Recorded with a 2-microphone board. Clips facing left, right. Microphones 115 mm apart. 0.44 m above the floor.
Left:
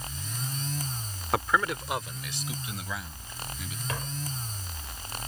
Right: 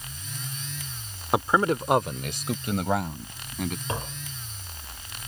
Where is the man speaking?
20° right (ahead or behind); by 3.8 s 55° right (ahead or behind).